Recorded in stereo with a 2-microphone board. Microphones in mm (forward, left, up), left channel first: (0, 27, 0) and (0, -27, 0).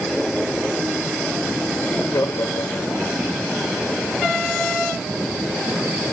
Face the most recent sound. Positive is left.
turn(degrees=75)  # may be behind; listen again after turning